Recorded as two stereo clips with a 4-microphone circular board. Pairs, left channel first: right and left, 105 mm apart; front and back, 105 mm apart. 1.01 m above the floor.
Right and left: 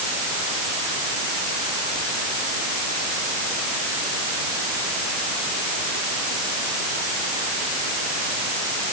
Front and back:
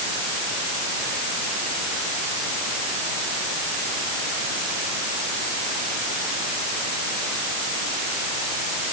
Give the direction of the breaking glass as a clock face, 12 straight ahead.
No breaking glass in this recording.